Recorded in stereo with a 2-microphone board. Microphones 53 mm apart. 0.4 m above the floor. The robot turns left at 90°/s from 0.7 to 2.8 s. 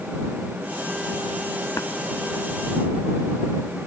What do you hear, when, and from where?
1.8 s tapping: 75° left (ahead or behind)